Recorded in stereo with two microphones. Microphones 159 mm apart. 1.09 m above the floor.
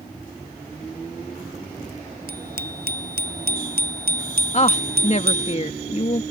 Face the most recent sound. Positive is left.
turn(degrees=45)  # may be behind; listen again after turning